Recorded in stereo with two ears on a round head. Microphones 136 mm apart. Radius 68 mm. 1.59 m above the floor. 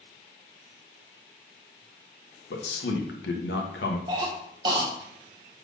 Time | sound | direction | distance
2.5 | a man speaking | 85° left | 1.6 m
4.1 | a cough | 30° right (ahead or behind) | 1.9 m